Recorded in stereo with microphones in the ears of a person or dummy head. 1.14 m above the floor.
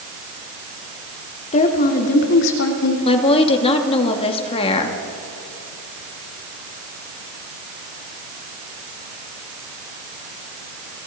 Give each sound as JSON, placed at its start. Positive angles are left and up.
{"t": 1.5, "sound": "a woman speaking", "side_deg": 35, "distance_m": 2.0}
{"t": 3.0, "sound": "a woman speaking", "side_deg": 35, "distance_m": 2.5}